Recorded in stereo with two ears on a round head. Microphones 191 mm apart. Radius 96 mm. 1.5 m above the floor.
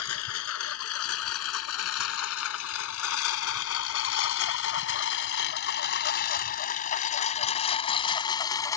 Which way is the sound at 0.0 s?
75° left (ahead or behind).